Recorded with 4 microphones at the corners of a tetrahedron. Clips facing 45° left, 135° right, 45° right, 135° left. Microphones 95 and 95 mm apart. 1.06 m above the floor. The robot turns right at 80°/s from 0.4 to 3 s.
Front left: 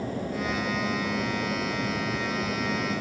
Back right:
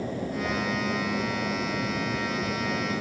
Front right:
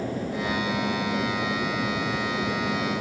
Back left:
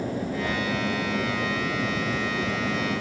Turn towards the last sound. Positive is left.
turn(degrees=10)